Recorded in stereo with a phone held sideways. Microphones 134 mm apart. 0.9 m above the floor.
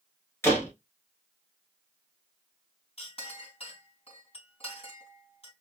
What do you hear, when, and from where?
0.4 s a door slam: 20° left (ahead or behind), 3 m
3.0 s a clink: 50° left (ahead or behind), 3.5 m